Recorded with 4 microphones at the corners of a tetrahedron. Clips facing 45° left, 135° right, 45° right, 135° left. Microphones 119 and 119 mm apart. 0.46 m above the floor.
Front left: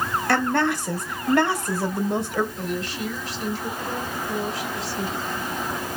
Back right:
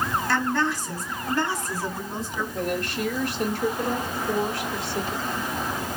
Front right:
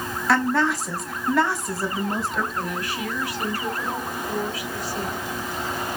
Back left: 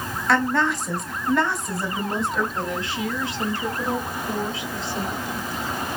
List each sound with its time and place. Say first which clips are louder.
0.3 s a woman speaking: front left 5 dB, even; 45° left, 2.5 m
2.5 s a woman speaking: back right 2 dB, back left 1 dB; 165° right, 3 m